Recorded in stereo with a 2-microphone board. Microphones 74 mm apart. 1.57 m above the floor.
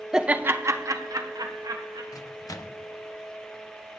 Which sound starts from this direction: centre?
Laughter, at 0.1 s.